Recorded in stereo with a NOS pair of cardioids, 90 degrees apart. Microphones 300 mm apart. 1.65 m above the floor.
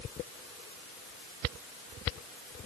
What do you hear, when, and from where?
Only background noise.